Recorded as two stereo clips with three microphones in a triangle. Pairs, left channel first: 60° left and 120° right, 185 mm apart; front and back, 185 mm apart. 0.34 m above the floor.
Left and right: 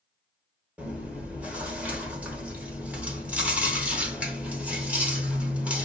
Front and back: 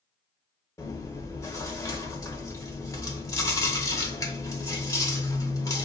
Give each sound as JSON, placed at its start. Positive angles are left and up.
{"t": 0.8, "sound": "chewing", "azimuth_deg": -45, "distance_m": 0.9}